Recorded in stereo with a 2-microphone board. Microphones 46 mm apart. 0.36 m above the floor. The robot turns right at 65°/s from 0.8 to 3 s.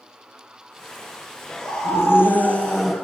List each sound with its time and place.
1.6 s a scream: 90° left, 8 m; by 3.0 s straight behind, 8 m